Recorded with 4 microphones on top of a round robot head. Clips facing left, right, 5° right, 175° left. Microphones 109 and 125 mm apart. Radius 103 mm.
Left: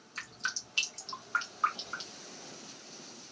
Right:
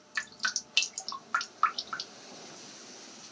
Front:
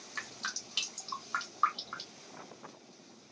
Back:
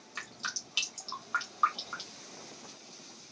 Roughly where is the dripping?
Right.